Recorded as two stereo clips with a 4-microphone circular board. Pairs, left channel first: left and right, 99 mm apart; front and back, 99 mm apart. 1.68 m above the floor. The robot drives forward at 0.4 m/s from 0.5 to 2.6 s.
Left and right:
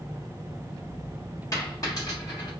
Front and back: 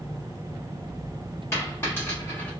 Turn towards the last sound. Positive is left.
turn(degrees=70)